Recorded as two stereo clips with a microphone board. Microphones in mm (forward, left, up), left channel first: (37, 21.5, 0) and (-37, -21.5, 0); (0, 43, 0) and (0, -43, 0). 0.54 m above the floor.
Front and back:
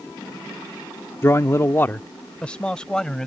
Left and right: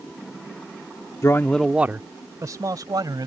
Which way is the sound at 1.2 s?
70° left.